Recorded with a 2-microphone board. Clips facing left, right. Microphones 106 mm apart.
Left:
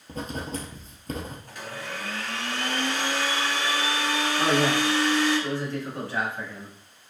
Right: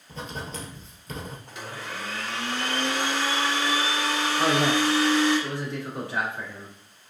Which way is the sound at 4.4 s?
20° right (ahead or behind).